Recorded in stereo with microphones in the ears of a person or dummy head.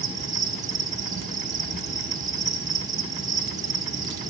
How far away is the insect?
About 0.8 m.